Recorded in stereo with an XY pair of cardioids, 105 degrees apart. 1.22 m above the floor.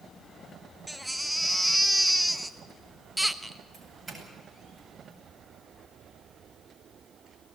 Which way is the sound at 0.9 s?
Straight ahead.